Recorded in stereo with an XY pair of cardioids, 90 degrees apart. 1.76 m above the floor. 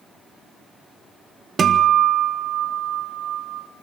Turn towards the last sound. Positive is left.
turn(degrees=-50)